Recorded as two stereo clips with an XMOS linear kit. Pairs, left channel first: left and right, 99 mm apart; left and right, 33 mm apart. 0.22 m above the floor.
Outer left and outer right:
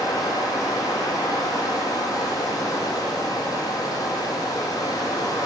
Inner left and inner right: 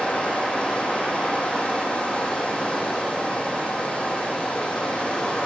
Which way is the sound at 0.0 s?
40° left (ahead or behind).